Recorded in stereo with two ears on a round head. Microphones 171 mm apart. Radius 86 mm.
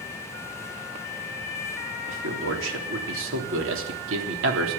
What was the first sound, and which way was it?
A man speaking, 80° right.